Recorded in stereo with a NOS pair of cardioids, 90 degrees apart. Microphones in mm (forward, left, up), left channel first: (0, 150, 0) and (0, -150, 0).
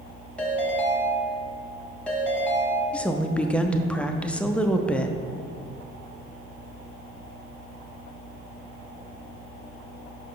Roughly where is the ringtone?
Ahead.